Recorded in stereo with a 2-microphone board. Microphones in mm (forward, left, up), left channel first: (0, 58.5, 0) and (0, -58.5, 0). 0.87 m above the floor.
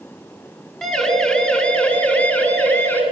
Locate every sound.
0.8 s a siren: 5° left (ahead or behind), 8.5 m; by 3.0 s 15° left (ahead or behind), 11 m